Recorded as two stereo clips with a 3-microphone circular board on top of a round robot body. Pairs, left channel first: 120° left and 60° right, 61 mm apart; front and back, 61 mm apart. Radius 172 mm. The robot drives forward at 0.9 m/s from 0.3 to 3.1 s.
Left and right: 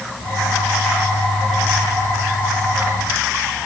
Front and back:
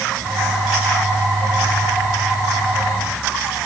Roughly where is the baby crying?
No baby crying in this recording.